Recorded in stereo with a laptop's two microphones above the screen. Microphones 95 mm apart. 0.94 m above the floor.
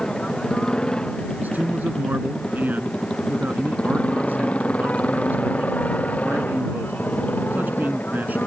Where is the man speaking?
20° right (ahead or behind).